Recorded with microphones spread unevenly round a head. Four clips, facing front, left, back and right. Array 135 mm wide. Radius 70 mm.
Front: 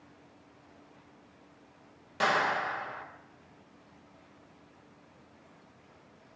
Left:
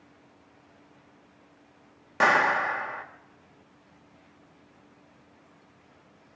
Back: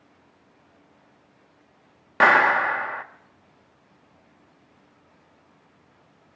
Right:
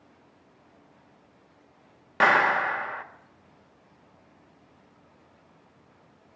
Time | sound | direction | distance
2.2 | a clap | 165° left | 1.2 m